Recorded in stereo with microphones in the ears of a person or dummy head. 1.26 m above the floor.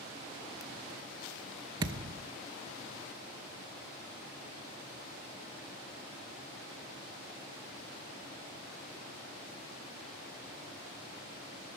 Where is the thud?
30° right (ahead or behind), 0.8 m.